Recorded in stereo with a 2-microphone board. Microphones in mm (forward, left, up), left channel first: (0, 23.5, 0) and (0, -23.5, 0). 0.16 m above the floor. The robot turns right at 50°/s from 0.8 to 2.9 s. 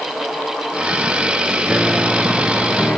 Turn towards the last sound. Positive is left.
turn(degrees=35)